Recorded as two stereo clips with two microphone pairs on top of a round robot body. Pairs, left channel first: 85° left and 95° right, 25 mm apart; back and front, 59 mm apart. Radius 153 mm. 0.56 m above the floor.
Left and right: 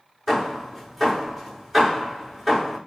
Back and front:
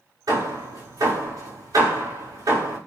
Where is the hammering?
5° right, 5.5 m.